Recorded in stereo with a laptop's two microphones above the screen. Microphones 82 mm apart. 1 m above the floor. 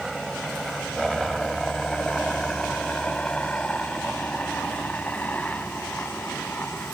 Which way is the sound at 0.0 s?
Centre (ahead or behind).